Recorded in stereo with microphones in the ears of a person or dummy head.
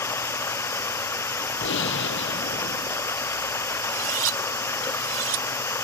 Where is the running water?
10° left (ahead or behind).